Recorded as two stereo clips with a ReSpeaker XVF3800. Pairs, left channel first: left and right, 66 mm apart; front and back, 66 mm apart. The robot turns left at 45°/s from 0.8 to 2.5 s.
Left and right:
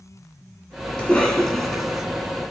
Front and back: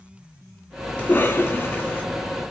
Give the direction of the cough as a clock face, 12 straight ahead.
11 o'clock.